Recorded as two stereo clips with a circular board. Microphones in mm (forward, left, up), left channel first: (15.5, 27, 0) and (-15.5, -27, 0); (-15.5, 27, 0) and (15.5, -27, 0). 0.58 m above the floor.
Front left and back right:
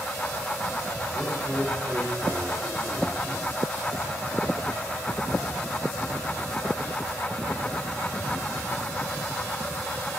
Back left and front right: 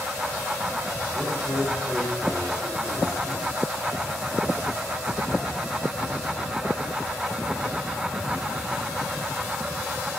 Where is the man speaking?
Straight behind, 1.6 m.